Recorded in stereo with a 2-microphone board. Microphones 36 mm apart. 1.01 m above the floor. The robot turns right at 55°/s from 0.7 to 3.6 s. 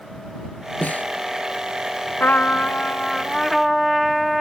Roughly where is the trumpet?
Left.